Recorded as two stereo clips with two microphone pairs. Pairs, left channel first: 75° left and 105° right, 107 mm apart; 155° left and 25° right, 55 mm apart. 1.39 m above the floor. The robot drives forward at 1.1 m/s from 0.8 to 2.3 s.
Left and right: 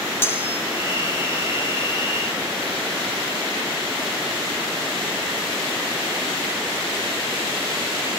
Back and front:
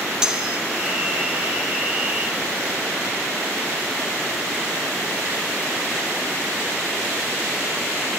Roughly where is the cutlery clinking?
Ahead left.